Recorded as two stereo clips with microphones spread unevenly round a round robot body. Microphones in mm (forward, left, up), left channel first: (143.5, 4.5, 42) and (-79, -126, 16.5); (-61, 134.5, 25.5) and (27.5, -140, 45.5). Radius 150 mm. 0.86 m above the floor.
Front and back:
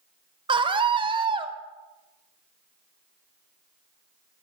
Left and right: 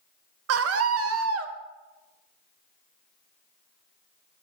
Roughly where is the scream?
Right.